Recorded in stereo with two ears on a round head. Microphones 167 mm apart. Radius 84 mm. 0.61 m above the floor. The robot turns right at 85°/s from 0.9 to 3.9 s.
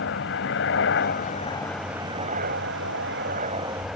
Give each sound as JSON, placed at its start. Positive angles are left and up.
{"t": 0.0, "sound": "a helicopter", "azimuth_deg": 105}